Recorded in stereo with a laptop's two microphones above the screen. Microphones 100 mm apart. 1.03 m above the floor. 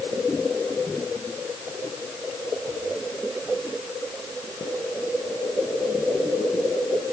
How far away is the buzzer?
I don't hear a buzzer.